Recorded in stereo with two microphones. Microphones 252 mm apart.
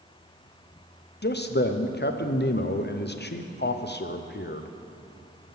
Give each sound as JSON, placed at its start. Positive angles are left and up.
{"t": 1.2, "sound": "a man speaking", "side_deg": 45, "distance_m": 0.7}